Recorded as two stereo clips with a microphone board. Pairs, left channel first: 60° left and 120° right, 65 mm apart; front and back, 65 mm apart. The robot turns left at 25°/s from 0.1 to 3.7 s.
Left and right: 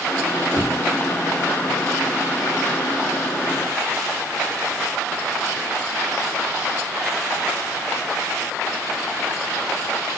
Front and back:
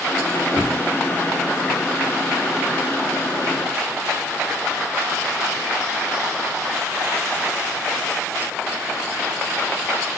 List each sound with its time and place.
0.5 s knocking: 5° left, 3.5 m; by 0.8 s straight ahead, 3.5 m